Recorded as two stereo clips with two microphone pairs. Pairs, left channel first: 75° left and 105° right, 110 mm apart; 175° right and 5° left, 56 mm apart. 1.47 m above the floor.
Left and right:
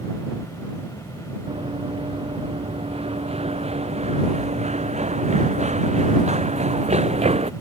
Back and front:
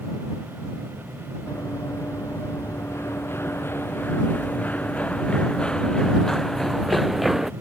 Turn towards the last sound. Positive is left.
turn(degrees=-80)